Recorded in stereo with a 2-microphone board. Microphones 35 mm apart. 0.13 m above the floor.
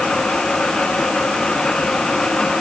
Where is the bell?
I don't hear a bell.